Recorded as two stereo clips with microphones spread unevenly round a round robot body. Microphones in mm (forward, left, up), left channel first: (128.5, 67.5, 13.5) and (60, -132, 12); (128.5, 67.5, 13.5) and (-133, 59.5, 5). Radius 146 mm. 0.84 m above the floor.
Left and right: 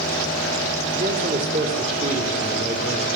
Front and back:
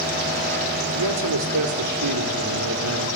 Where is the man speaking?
175° right, 2.5 m.